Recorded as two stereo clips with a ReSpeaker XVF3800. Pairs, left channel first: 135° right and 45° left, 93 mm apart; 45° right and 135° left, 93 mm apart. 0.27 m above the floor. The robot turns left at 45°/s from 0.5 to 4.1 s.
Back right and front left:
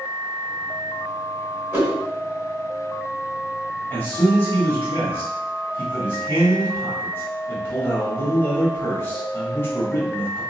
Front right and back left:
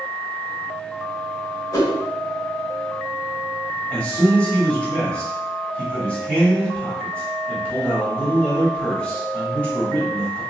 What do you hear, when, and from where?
1.7 s a whoosh: 10° right, 1.5 m; by 1.9 s 20° right, 1.5 m
3.9 s a man speaking: 95° right, 1.4 m; by 10.4 s 105° right, 1.4 m